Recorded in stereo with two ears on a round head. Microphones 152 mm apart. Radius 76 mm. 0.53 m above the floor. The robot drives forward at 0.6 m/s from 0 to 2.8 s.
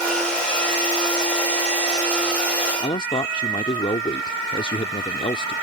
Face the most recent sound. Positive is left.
turn(degrees=25)  # may be behind; listen again after turning